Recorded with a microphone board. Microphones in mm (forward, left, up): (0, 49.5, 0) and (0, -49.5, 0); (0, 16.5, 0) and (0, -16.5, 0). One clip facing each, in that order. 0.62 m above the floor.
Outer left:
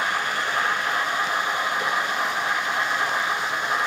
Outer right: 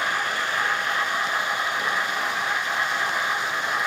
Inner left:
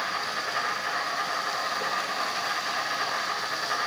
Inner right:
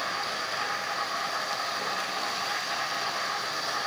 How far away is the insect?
About 2.5 m.